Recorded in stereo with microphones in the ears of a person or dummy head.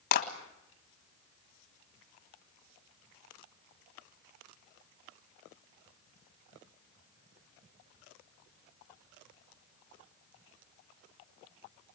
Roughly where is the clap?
Left.